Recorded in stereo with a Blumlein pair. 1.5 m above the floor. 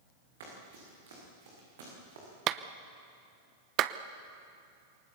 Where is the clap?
35° right, 0.9 m.